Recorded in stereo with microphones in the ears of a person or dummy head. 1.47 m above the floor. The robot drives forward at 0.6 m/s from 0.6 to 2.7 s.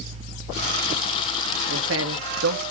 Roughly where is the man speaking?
Right.